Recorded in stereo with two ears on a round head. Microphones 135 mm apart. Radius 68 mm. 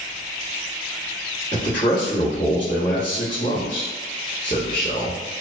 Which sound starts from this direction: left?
A man speaking, at 1.5 s.